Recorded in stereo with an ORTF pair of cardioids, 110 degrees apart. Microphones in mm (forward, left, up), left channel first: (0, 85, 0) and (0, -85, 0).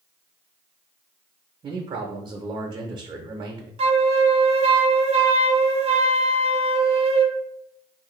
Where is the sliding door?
I don't hear a sliding door.